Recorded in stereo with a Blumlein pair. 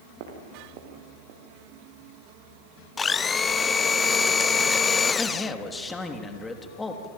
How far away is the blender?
About 0.8 m.